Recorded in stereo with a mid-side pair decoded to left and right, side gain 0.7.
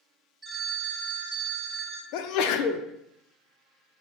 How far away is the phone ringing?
About 0.9 m.